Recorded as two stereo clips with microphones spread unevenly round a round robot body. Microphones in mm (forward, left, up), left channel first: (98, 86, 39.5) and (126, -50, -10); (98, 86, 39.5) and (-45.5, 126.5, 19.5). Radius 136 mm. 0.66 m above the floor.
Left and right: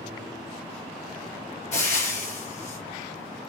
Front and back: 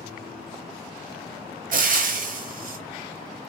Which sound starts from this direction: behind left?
Frying, at 1.7 s.